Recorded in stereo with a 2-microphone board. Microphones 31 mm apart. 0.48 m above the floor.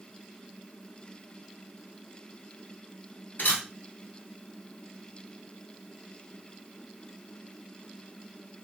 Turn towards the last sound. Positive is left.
turn(degrees=65)  # may be behind; listen again after turning